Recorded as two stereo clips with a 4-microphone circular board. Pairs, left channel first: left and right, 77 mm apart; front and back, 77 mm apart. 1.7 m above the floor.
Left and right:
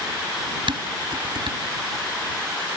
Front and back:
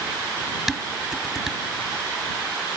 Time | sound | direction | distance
0.7 | dishes clattering | 95° right | ?